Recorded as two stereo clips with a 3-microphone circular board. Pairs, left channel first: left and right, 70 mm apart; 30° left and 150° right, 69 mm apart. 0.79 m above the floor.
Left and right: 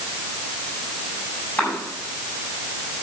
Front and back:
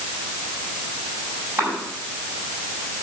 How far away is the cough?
About 7.5 m.